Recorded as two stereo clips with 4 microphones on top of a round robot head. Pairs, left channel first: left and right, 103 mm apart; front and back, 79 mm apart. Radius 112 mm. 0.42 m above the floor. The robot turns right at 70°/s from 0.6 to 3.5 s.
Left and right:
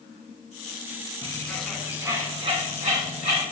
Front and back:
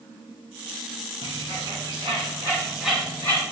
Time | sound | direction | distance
1.2 | a bird | 150° left | 3 m